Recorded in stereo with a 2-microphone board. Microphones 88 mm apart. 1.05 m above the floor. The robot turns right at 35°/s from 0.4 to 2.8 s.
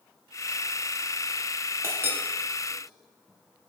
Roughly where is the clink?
Right.